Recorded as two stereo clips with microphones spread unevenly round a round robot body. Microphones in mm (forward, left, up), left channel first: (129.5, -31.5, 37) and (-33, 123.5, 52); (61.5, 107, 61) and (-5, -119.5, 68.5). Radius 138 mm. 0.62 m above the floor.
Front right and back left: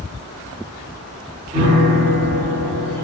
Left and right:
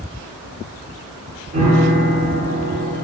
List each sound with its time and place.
1.5 s a piano: 160° right, 0.8 m